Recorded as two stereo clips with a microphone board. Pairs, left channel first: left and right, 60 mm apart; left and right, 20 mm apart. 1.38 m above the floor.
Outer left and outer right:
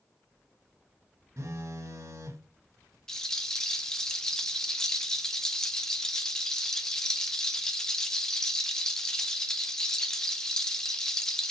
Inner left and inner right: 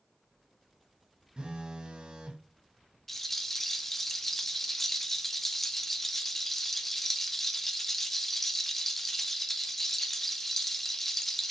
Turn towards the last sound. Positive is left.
turn(degrees=10)  # may be behind; listen again after turning